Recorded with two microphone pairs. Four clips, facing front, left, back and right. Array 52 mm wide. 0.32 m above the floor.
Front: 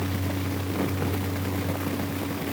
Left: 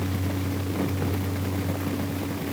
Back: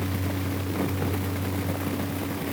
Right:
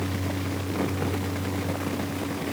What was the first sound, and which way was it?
Only background noise.